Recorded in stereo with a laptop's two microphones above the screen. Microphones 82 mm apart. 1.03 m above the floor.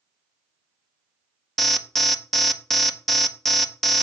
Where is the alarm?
Centre (ahead or behind), 0.6 m.